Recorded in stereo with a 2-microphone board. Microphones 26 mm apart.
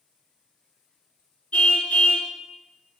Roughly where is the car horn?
Left.